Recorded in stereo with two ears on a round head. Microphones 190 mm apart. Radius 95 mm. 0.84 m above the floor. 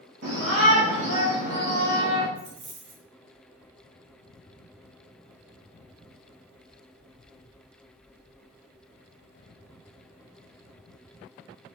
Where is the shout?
65° right (ahead or behind), 2.0 m.